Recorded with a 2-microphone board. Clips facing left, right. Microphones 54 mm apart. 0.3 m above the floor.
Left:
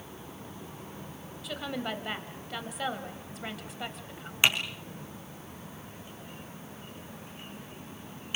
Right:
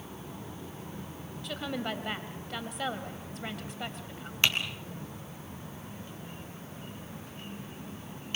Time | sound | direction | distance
1.4 | a woman speaking | centre (ahead or behind) | 1.6 m
4.4 | typing on a keyboard | 15° left (ahead or behind) | 3 m